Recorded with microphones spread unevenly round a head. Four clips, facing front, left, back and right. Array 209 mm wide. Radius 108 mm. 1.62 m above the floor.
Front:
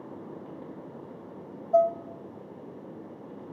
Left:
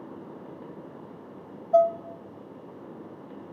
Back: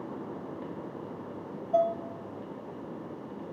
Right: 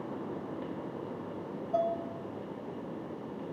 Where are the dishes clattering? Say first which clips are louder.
Left 10 dB, front 4 dB; 75° left, 0.7 m.